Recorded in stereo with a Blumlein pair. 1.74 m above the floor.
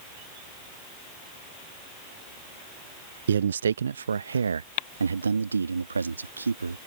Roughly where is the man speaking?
Ahead right.